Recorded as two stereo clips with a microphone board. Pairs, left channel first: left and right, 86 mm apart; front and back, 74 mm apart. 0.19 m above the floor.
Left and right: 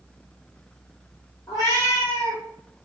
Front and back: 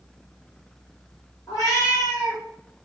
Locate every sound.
1.5 s a cat meowing: 40° left, 1.9 m